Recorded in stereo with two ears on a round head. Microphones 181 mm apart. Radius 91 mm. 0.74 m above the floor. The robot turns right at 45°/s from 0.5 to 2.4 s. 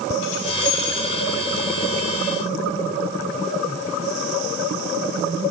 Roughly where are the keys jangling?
Left.